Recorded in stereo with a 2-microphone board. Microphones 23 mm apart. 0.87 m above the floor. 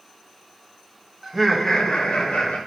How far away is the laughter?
About 0.8 m.